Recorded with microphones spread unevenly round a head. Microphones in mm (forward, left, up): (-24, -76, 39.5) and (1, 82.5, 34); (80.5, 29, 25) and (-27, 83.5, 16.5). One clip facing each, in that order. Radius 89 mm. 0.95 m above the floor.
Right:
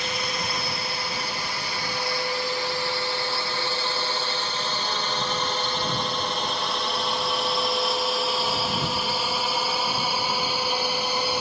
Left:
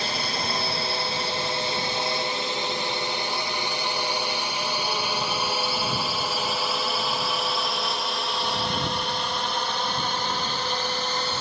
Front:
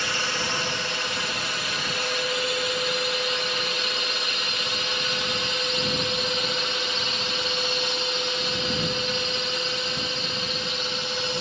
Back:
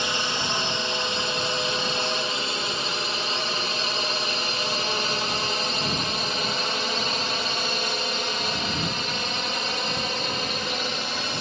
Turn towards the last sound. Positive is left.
turn(degrees=-175)